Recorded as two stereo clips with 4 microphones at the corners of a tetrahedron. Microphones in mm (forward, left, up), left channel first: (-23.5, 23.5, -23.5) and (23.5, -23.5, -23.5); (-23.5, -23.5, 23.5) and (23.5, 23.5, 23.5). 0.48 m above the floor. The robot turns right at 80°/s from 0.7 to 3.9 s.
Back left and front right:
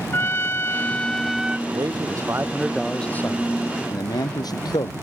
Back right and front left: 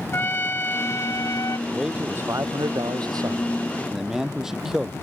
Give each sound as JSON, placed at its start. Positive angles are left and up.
{"t": 0.1, "sound": "a trumpet", "azimuth_deg": 175}
{"t": 1.7, "sound": "a man speaking", "azimuth_deg": -50}